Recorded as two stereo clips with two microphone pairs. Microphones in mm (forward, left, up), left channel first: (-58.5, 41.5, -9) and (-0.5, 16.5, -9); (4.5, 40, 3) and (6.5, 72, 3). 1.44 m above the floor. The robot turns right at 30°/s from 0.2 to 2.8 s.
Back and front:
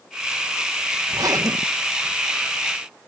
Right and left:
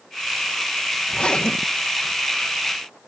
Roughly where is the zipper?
Ahead right.